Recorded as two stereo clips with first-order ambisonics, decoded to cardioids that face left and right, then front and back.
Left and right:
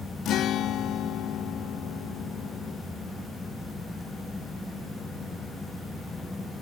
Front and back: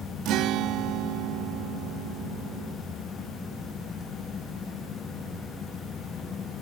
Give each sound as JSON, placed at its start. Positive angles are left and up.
{"t": 0.2, "sound": "a guitar", "azimuth_deg": 140}